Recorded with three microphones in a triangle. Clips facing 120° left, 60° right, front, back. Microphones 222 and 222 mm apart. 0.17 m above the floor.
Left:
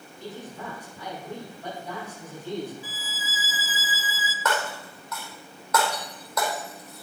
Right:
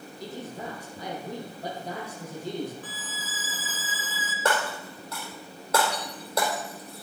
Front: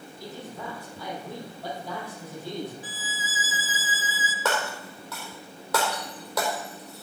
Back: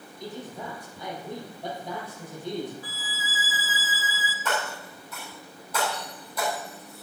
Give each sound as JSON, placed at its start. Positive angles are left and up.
{"t": 0.2, "sound": "a man speaking", "azimuth_deg": -110, "distance_m": 5.5}
{"t": 2.8, "sound": "a violin", "azimuth_deg": 45, "distance_m": 0.8}
{"t": 4.5, "sound": "breaking glass", "azimuth_deg": 0, "distance_m": 3.5}